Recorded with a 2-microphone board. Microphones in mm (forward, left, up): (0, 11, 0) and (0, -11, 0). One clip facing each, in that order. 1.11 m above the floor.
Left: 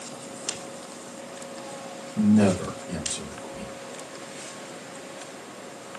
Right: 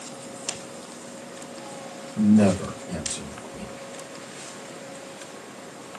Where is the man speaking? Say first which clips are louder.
Right 1 dB; 20° left (ahead or behind), 1.1 m.